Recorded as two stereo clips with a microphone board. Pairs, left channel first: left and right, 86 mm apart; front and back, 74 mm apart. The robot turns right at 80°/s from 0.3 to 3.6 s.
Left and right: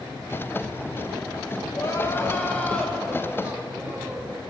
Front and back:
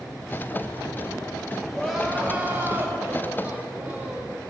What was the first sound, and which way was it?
Crying, 80° left.